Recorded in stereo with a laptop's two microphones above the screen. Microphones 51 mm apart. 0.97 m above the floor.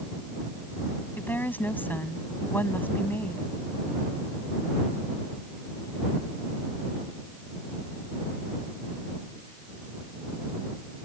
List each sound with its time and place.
1.2 s a woman speaking: 40° left (ahead or behind)